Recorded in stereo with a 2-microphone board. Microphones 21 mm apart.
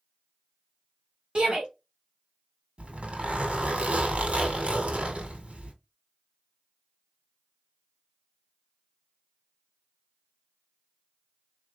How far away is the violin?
I don't hear a violin.